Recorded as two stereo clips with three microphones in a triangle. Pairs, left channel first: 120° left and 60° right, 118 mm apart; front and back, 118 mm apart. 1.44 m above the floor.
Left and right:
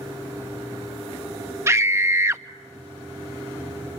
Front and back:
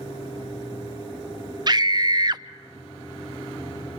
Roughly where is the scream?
Behind right.